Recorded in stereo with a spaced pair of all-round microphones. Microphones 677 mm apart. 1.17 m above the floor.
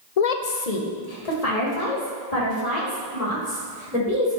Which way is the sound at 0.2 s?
65° left (ahead or behind).